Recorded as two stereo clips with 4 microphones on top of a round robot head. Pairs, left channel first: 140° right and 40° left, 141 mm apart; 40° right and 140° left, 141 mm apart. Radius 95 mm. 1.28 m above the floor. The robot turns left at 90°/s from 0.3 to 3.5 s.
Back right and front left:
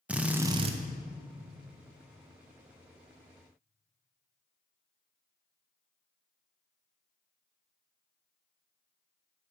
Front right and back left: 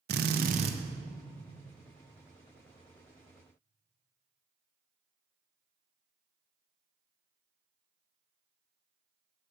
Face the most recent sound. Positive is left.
turn(degrees=-165)